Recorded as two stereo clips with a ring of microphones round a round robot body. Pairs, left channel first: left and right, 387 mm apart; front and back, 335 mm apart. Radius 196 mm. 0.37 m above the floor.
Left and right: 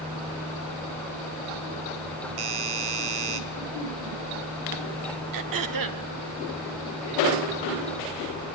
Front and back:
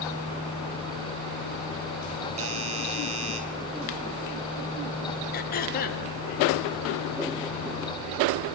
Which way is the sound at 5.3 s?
60° right.